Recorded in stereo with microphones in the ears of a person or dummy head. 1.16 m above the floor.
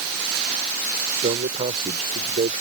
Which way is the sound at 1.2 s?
40° right (ahead or behind).